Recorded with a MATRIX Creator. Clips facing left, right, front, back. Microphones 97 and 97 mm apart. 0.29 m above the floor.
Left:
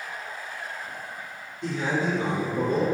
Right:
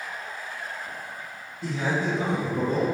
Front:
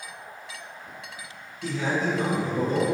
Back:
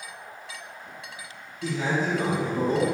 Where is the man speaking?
170° right, 2.0 m; by 2.9 s 130° right, 3 m.